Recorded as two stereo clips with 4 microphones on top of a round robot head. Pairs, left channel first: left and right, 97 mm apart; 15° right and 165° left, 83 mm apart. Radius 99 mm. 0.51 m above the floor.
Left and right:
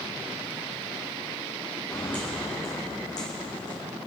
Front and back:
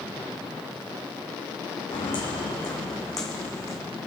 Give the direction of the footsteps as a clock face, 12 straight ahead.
12 o'clock.